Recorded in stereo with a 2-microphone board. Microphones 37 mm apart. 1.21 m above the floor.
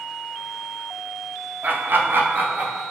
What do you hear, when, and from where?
1.6 s laughter: 45° right (ahead or behind), 0.8 m; by 2.8 s 35° right (ahead or behind), 1.1 m